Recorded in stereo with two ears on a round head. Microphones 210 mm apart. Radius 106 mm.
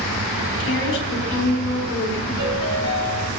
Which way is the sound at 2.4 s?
80° right.